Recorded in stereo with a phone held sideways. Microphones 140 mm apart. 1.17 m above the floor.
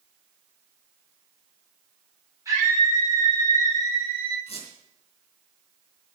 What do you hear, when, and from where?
2.5 s a scream: 25° right (ahead or behind), 4.5 m; by 4.4 s 40° right (ahead or behind), 4 m
4.5 s a squeak: 45° left (ahead or behind), 4 m